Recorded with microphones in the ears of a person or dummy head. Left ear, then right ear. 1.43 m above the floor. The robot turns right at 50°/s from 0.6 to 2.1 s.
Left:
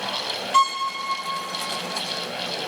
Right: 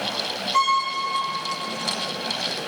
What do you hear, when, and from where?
0.5 s a violin: 35° left (ahead or behind), 1.1 m; by 0.9 s 20° left (ahead or behind), 1.1 m